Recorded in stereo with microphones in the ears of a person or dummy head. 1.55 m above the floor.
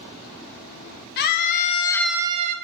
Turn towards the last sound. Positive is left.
turn(degrees=-45)  # may be behind; listen again after turning